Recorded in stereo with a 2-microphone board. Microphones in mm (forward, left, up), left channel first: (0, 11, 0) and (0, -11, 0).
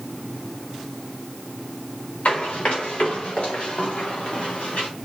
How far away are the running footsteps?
About 6 m.